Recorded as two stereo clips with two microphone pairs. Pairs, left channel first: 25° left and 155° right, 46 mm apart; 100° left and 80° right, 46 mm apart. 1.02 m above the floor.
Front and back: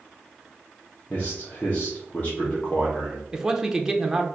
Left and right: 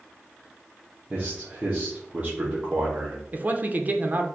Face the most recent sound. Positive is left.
turn(degrees=-75)